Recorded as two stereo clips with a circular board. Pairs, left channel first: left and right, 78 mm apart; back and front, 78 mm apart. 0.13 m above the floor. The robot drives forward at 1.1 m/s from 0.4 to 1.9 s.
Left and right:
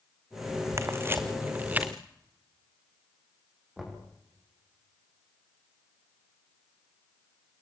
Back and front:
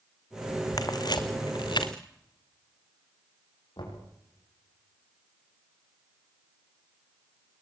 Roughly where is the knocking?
Behind.